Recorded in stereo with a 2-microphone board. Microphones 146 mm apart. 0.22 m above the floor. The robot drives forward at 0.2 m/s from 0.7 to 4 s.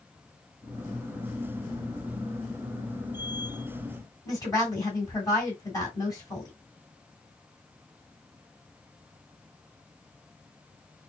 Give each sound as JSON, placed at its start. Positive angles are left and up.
{"t": 4.2, "sound": "a woman speaking", "side_deg": 25, "distance_m": 2.0}